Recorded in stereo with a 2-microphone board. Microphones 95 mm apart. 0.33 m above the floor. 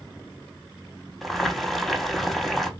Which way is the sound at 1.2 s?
Centre (ahead or behind).